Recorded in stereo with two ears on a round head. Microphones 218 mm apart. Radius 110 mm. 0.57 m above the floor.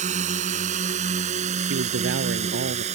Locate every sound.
0.0 s a drone: 30° right (ahead or behind); by 3.0 s 25° right (ahead or behind)
1.7 s a man speaking: 50° right (ahead or behind)